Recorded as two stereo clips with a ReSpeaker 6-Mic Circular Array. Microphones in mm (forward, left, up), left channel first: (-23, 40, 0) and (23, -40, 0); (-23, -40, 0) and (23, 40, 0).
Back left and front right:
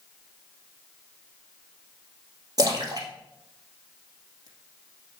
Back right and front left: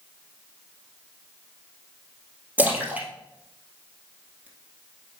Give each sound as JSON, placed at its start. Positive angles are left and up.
{"t": 2.6, "sound": "a splash", "azimuth_deg": -15, "distance_m": 2.0}